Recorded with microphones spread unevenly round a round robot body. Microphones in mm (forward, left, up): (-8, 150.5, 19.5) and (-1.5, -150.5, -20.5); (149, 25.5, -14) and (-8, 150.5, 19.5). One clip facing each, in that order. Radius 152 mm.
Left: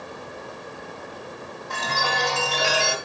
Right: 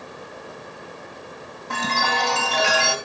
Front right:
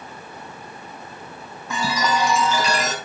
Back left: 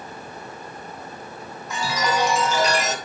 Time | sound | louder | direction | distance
1.7 | a chime | right 3 dB, front right 1 dB | 50° right | 2.5 m